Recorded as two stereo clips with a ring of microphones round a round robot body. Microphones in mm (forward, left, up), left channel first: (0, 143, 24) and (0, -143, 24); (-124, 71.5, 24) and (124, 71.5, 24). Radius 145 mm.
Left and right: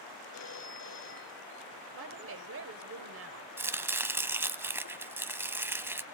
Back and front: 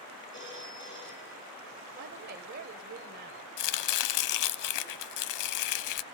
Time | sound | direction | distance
0.3 | a phone ringing | 135° left | 8.5 m
1.9 | a woman speaking | 55° right | 2 m
3.6 | chopping | 175° right | 0.8 m